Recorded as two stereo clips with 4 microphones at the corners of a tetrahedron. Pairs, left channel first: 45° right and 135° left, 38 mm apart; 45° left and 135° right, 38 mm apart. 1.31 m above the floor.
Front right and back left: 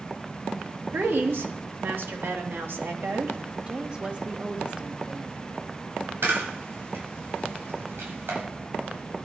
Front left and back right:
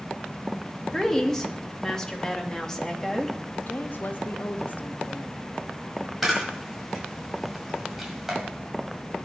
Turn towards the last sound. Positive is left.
turn(degrees=140)